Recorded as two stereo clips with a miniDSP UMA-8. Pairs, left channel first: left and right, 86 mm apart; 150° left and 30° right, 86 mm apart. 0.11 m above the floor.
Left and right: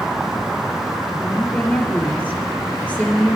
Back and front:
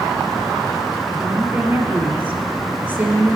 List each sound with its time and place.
1.2 s a woman speaking: 25° left, 2.5 m